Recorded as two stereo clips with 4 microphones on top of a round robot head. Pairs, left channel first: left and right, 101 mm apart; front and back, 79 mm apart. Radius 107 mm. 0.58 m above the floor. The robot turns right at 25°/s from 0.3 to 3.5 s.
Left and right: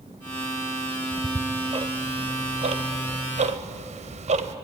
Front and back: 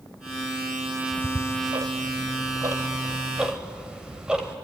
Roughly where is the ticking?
Behind right.